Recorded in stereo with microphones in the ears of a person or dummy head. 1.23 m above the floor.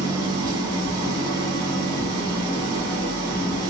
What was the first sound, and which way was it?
An engine running, 20° right (ahead or behind).